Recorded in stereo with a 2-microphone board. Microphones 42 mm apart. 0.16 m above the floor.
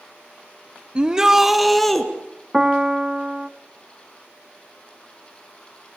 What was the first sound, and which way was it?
A shout, 25° right (ahead or behind).